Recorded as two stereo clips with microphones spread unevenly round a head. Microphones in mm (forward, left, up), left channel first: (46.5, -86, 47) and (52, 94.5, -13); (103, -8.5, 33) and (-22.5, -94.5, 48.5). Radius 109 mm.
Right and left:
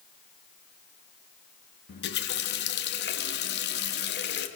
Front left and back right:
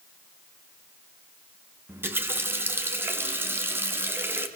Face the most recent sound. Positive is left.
turn(degrees=-70)